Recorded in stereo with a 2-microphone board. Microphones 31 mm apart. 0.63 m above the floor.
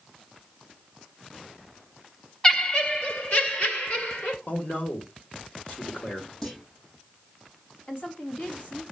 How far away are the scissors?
No scissors in this recording.